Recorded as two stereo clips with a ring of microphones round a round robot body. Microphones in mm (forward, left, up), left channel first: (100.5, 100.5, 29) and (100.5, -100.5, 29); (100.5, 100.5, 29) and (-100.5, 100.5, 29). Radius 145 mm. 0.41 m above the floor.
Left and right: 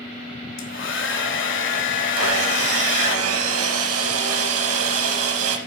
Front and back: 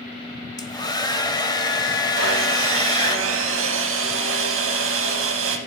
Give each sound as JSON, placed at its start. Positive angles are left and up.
{"t": 0.6, "sound": "a hair dryer", "azimuth_deg": 70, "distance_m": 1.2}
{"t": 2.2, "sound": "sawing", "azimuth_deg": -130, "distance_m": 0.6}